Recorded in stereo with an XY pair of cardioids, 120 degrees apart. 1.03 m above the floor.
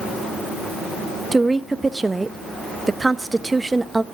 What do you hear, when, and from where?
1.3 s a woman speaking: 15° right, 0.9 m